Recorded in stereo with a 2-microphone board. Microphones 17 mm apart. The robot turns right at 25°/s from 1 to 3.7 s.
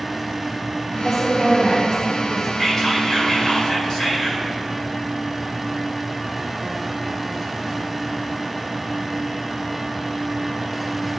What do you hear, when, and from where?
0.9 s a woman speaking: 35° right (ahead or behind), 2 m; by 2.5 s centre (ahead or behind), 2 m
2.6 s whispering: centre (ahead or behind), 2.5 m; by 4.5 s 25° left (ahead or behind), 2.5 m